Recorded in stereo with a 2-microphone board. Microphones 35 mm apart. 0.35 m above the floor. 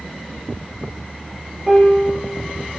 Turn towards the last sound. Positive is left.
turn(degrees=-10)  # may be behind; listen again after turning